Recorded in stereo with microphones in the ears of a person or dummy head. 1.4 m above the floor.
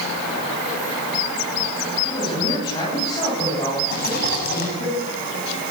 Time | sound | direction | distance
2.0 | a man speaking | 30° left (ahead or behind) | 9 m
3.9 | a rattle | 55° left (ahead or behind) | 7 m